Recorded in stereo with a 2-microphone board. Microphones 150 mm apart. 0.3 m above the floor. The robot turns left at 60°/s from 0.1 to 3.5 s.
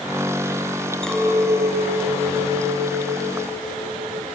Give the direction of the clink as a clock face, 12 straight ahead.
12 o'clock.